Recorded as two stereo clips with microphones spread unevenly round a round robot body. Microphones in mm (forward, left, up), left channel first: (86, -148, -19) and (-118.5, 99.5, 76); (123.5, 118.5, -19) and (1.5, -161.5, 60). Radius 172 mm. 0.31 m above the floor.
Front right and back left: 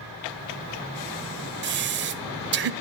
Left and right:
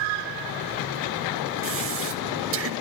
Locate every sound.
1.6 s breathing: 165° right, 0.6 m